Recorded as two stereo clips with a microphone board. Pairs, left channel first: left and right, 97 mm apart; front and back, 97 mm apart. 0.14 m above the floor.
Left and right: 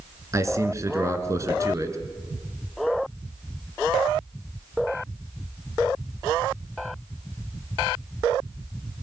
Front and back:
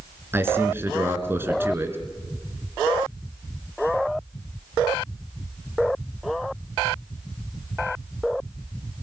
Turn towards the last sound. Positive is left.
turn(degrees=-125)